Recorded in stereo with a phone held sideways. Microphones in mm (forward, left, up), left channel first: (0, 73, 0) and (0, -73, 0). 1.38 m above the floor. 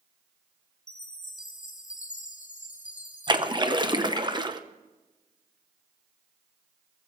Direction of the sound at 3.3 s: 30° right (ahead or behind).